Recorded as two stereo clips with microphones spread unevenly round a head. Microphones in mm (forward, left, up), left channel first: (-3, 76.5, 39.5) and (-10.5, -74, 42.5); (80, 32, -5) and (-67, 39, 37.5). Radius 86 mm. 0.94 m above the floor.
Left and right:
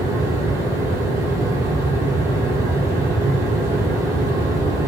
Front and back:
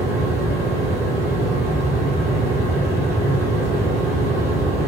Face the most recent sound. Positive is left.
turn(degrees=-90)